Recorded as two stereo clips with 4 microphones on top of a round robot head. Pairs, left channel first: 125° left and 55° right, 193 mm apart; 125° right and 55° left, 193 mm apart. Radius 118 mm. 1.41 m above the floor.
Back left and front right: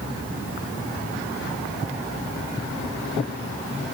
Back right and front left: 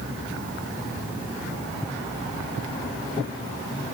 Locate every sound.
Only background noise.